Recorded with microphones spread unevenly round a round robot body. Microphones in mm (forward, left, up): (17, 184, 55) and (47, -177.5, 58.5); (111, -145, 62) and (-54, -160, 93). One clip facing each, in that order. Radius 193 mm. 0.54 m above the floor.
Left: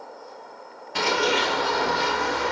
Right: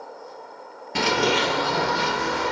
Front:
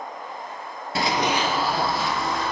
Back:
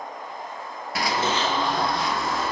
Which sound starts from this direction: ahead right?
Running footsteps, at 0.9 s.